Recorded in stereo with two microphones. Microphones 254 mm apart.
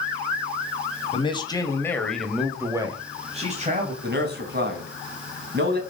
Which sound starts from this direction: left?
A man speaking, at 1.1 s.